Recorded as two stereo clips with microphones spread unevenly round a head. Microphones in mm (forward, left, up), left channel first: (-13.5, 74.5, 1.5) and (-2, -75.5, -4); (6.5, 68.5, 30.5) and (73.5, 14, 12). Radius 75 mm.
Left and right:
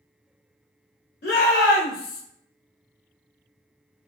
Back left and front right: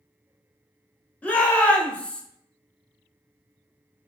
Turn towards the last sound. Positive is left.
turn(degrees=60)